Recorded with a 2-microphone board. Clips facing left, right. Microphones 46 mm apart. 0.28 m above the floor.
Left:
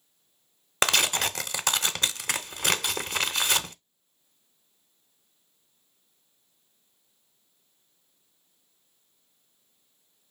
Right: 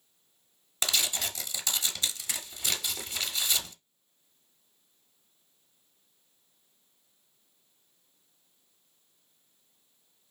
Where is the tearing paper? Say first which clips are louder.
Left 7 dB; 60° left (ahead or behind), 0.6 m.